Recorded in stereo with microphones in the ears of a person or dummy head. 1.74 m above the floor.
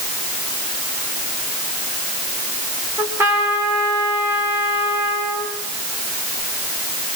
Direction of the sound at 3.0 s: 10° right (ahead or behind).